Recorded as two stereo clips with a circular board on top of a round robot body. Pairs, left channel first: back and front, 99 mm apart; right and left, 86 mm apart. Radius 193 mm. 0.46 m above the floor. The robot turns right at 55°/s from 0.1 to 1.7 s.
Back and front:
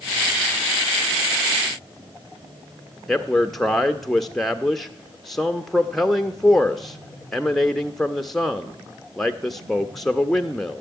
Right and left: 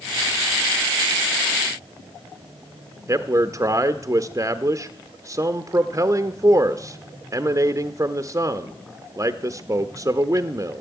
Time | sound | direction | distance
3.1 | a man speaking | 95° left | 0.9 m